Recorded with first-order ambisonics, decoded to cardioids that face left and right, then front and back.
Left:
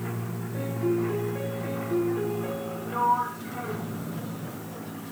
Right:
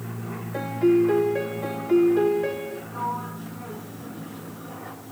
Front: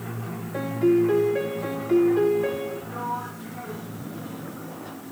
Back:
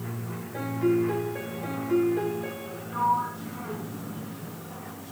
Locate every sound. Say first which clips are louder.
0.5 s a piano: right 7 dB, front 4 dB; 60° right, 1.0 m
2.9 s a sliding door: left 7 dB, back 10 dB; 65° left, 3.5 m